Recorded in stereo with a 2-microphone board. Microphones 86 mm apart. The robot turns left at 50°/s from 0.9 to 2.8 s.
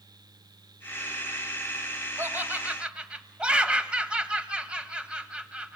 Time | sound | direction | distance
2.2 | laughter | 30° right (ahead or behind) | 1.7 m